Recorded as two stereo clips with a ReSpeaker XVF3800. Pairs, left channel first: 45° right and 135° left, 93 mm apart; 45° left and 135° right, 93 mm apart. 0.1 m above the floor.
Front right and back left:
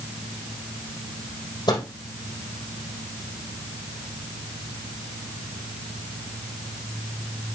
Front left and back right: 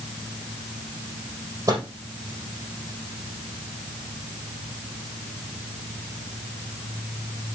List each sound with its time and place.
1.7 s a microwave: 80° right, 4 m